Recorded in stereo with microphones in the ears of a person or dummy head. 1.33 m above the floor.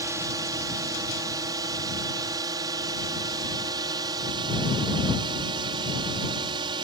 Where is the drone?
20° right (ahead or behind); by 6.8 s 25° right (ahead or behind).